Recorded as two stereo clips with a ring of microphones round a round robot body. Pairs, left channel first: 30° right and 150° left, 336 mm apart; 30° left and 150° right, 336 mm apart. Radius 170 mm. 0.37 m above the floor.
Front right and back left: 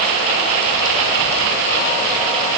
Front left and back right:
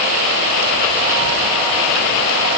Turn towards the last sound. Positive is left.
No sound to turn to.